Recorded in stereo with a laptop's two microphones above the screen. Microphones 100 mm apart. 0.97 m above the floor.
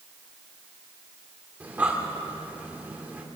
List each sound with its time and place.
1.6 s breathing: 15° right (ahead or behind), 2.5 m